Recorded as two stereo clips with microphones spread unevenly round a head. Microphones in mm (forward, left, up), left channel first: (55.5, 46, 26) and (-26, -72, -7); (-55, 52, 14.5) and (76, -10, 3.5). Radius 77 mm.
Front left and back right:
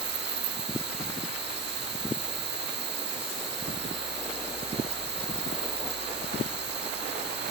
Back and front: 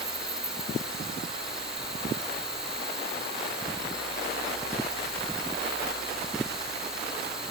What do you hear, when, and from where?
0.0 s an insect: 115° right